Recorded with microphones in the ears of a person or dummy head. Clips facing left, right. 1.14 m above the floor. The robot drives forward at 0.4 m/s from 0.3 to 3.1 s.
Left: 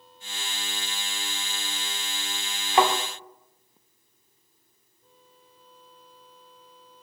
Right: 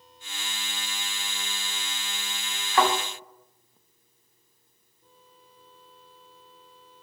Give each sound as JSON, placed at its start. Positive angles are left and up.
{"t": 2.7, "sound": "a thud", "side_deg": 20, "distance_m": 0.5}